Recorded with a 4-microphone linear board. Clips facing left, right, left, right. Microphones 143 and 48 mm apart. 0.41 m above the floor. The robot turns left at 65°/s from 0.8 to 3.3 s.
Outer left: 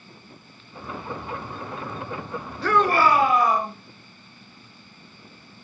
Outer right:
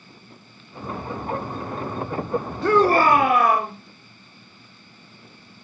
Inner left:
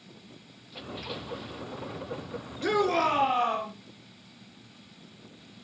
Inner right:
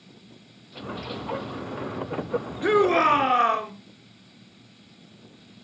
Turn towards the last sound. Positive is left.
turn(degrees=-65)